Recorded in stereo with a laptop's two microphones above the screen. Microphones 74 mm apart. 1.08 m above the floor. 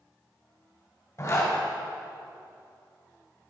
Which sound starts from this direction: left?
A zipper, at 1.2 s.